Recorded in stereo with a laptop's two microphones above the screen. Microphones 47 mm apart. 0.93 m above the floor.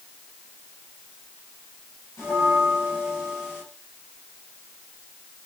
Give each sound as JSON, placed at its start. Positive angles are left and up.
{"t": 2.2, "sound": "a bell", "side_deg": 80, "distance_m": 2.0}